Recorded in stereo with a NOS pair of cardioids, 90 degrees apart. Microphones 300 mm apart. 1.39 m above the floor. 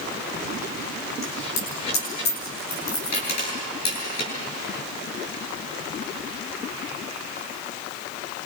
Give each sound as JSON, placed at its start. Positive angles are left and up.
{"t": 1.2, "sound": "a dropped coin", "azimuth_deg": 60, "distance_m": 8.5}